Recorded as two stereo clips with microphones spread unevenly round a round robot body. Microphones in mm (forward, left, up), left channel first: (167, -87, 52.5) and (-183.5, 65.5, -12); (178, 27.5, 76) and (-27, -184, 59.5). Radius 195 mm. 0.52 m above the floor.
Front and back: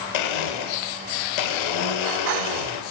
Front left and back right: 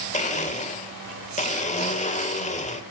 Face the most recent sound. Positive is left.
turn(degrees=-20)